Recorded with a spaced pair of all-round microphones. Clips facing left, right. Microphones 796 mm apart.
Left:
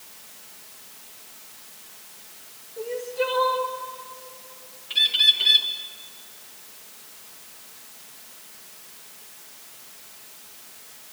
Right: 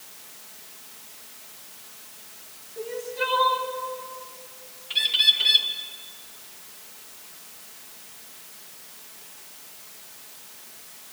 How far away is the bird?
About 2 m.